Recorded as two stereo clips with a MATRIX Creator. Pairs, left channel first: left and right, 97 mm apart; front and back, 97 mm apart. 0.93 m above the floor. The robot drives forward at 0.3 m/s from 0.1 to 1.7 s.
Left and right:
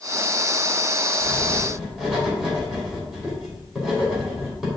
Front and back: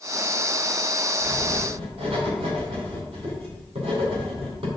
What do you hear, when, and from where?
1.2 s writing: 175° right, 2.5 m; by 4.7 s straight behind, 3 m